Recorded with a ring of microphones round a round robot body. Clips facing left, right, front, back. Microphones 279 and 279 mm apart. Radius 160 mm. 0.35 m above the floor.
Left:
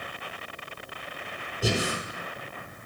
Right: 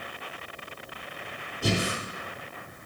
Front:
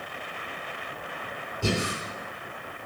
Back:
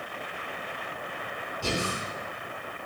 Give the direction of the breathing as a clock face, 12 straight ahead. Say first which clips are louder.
Even, front 3 dB; 12 o'clock.